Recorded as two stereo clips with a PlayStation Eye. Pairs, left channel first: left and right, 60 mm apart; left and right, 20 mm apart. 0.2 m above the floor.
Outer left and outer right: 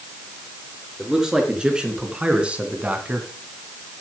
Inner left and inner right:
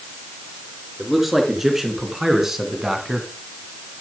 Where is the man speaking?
10° right (ahead or behind), 3.5 m; by 3.3 s 25° right (ahead or behind), 1.8 m.